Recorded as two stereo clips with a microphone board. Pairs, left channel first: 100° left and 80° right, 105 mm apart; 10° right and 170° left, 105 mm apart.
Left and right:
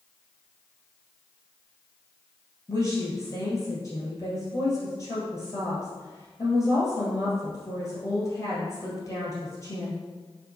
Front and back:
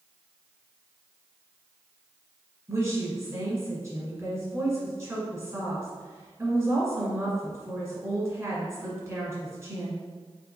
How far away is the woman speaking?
About 1.9 m.